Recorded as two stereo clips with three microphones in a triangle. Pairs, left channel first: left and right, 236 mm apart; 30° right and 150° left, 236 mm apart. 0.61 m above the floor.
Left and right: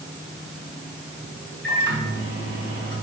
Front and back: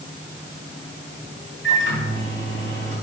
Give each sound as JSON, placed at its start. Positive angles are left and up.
{"t": 1.6, "sound": "a microwave", "azimuth_deg": -55, "distance_m": 4.0}